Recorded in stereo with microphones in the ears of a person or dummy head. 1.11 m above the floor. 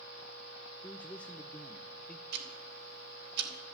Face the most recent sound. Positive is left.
turn(degrees=-55)  # may be behind; listen again after turning